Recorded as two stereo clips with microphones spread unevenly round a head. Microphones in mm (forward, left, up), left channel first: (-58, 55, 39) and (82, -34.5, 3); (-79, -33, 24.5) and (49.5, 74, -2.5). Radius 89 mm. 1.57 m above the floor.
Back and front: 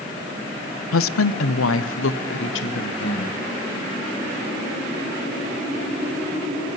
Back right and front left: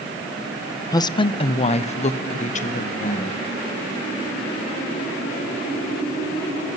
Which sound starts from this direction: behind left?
A woman speaking, at 0.9 s.